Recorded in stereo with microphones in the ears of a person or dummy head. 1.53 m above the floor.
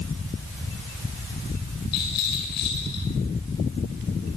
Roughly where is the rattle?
Left.